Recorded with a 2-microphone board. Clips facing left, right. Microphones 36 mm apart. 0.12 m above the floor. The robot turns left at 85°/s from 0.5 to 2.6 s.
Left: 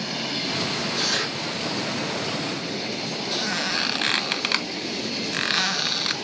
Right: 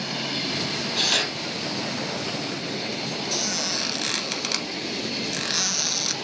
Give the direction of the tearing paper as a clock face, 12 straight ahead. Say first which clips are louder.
Right 5 dB; 1 o'clock.